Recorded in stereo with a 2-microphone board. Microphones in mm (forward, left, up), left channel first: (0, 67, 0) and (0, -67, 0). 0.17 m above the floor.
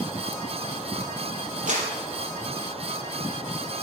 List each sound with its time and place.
1.7 s a clap: 70° right (ahead or behind), 4 m